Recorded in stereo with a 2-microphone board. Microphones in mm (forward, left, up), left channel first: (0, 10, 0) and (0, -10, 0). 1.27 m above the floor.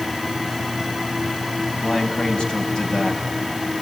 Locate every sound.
1.8 s a man speaking: 50° left (ahead or behind), 6 m; by 3.2 s 40° left (ahead or behind), 5.5 m